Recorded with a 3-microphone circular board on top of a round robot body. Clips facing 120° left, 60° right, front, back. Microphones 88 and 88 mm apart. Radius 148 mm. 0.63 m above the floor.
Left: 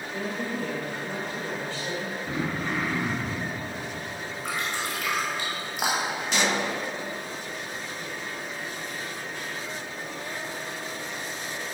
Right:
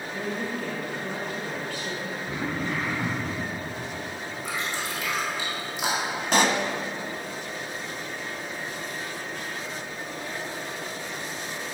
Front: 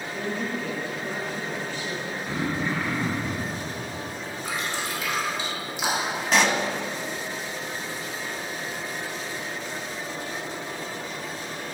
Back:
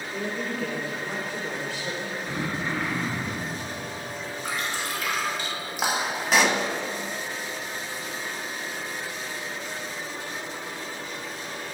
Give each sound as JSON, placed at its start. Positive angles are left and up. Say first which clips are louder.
{"t": 0.1, "sound": "a woman speaking", "louder": "even, front 1 dB", "azimuth_deg": 180, "distance_m": 2.5}
{"t": 2.3, "sound": "throat clearing", "louder": "even, front 3 dB", "azimuth_deg": 100, "distance_m": 1.8}
{"t": 4.5, "sound": "dripping", "louder": "left 1 dB, even", "azimuth_deg": 145, "distance_m": 2.5}
{"t": 6.3, "sound": "a pop", "louder": "right 5 dB, even", "azimuth_deg": -95, "distance_m": 0.8}